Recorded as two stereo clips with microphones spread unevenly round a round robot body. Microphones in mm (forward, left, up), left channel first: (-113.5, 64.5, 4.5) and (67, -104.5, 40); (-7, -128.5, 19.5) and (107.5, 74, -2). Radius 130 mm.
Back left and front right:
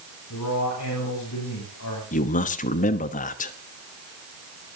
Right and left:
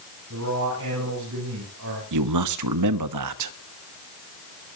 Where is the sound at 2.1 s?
75° left, 1.0 m.